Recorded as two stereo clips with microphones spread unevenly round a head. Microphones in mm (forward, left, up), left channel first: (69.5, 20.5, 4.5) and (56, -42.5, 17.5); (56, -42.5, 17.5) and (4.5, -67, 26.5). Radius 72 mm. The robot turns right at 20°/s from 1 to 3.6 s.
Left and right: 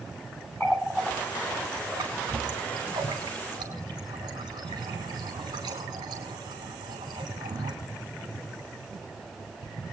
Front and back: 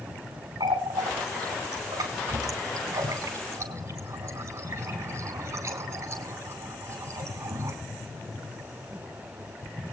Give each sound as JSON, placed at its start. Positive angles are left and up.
{"t": 0.6, "sound": "a running tap", "azimuth_deg": 170, "distance_m": 5.5}